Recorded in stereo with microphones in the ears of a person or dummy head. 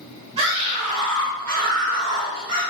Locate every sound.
0.4 s a scream: 35° right (ahead or behind), 3.5 m; by 2.6 s 50° right (ahead or behind), 5 m